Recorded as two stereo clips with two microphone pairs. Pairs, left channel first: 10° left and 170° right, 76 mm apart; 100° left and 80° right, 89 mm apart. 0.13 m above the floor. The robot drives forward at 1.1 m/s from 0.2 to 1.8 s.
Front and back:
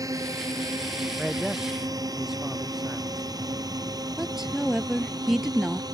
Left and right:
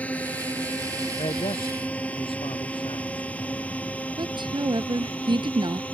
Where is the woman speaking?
85° right.